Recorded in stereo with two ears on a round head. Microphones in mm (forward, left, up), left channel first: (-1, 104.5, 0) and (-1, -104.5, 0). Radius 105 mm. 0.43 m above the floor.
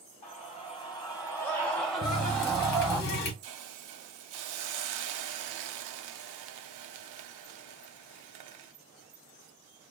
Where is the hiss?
90° right, 0.5 m.